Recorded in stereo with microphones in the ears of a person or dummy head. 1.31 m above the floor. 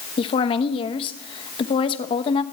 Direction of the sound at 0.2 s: 25° left (ahead or behind).